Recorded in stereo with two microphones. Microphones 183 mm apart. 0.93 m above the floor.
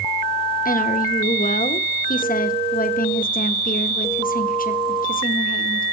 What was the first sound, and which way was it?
A woman speaking, 50° left (ahead or behind).